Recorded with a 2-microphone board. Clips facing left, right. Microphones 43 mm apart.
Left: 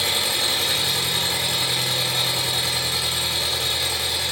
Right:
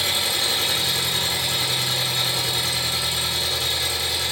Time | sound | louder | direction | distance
0.0 | an engine running | even | 70° left (ahead or behind) | 2.5 m